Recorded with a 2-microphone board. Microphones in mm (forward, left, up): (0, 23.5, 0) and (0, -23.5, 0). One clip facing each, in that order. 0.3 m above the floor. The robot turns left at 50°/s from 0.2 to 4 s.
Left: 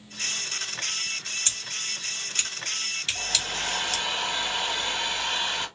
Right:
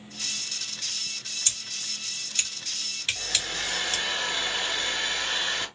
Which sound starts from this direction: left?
Scissors, at 1.4 s.